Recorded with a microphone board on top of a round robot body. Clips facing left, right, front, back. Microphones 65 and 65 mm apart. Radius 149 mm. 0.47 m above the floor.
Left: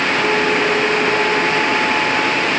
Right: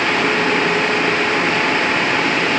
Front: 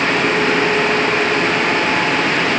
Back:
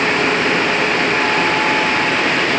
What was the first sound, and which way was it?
Only background noise.